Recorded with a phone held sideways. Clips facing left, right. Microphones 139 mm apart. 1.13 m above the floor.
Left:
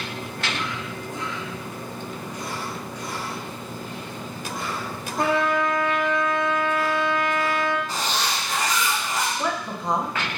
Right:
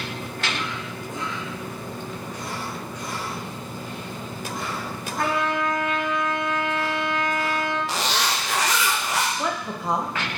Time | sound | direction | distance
5.2 | a trumpet | 25° left (ahead or behind) | 0.8 m
7.9 | a zipper | 90° right | 0.6 m
9.4 | a woman speaking | 5° right (ahead or behind) | 0.8 m